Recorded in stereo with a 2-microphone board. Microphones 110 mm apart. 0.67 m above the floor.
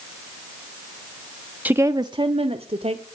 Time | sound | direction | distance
1.6 | a woman speaking | 15° right (ahead or behind) | 0.6 m